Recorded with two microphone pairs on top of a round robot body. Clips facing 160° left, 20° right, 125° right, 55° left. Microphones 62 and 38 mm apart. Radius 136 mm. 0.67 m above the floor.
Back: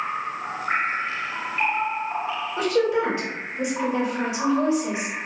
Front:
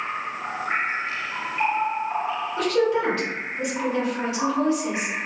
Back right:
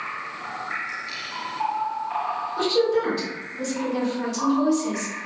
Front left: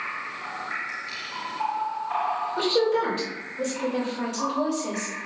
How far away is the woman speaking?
About 1.7 m.